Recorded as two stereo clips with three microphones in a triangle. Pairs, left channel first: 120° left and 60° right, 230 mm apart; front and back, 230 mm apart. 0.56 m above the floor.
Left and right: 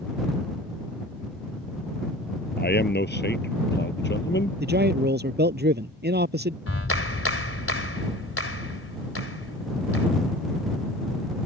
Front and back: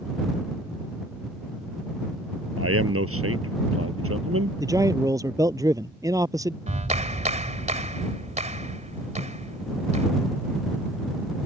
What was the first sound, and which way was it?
A man speaking, 165° left.